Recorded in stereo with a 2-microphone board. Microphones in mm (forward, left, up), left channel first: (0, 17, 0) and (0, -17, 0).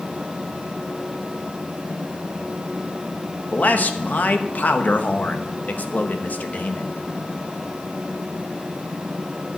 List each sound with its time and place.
3.5 s a man speaking: 50° left (ahead or behind), 0.9 m